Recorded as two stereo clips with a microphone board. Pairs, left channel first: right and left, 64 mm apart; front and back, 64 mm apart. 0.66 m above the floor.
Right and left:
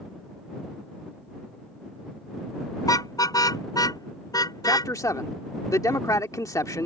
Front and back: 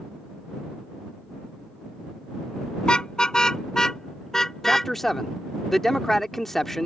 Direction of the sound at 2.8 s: 75° right.